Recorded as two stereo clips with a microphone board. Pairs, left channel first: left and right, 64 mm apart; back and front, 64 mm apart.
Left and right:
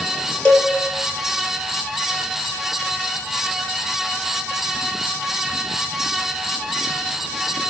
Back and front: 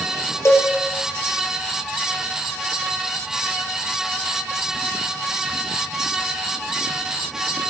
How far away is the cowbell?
About 1.0 m.